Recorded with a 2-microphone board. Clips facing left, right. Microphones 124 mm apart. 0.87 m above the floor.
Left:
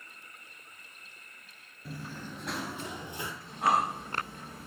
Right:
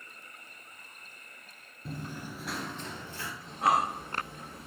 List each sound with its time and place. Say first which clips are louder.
1.9 s running footsteps: right 2 dB; 25° right (ahead or behind), 0.9 m; by 3.3 s 20° left (ahead or behind), 1.3 m
3.4 s breathing: right 1 dB; 25° right (ahead or behind), 4.5 m